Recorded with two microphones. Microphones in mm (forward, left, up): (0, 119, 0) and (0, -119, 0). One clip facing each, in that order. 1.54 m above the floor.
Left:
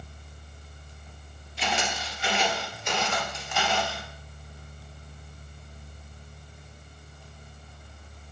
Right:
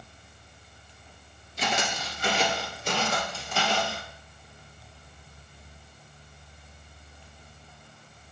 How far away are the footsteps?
About 2 m.